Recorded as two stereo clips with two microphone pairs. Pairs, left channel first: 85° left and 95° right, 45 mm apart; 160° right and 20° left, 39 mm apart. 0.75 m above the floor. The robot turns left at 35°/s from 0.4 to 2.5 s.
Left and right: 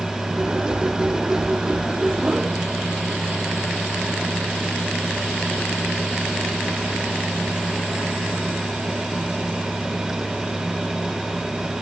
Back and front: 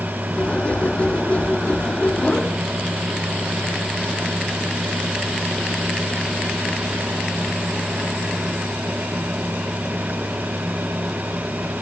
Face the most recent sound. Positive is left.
No sound to turn to.